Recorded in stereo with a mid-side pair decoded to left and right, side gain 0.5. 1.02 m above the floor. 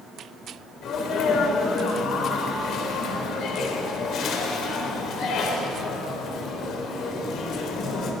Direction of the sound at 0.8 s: 65° left.